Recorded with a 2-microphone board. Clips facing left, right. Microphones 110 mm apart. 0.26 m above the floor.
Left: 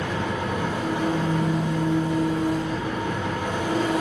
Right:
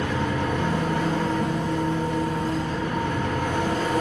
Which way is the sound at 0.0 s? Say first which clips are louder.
Right 2 dB; 10° left (ahead or behind).